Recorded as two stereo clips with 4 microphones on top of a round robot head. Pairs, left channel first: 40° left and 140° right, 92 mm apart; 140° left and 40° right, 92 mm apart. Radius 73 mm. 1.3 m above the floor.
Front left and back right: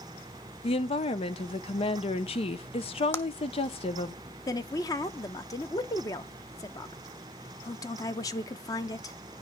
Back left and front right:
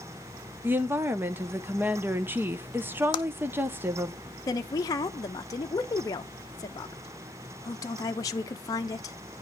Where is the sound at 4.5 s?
90° left, 0.7 m.